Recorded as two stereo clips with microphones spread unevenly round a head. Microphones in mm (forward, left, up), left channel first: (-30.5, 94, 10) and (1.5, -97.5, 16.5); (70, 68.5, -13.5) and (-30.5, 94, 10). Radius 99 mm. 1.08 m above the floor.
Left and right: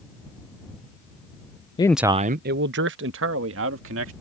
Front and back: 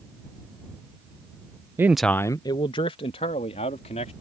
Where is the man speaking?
100° left; by 4.1 s 55° right.